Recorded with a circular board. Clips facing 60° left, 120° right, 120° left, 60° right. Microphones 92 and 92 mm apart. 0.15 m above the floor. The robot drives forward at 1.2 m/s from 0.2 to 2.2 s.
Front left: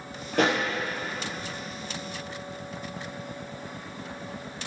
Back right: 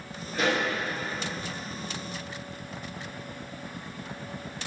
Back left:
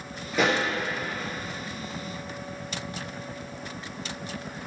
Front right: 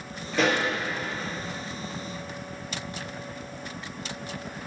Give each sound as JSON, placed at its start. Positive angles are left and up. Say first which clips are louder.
{"t": 0.3, "sound": "a pop", "louder": "front left 3 dB, even", "azimuth_deg": 35, "distance_m": 4.0}